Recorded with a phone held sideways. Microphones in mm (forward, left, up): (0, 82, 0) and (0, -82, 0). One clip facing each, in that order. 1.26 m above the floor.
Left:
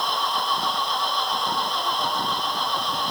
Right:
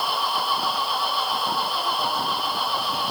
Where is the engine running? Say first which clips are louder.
Even; 5° right (ahead or behind).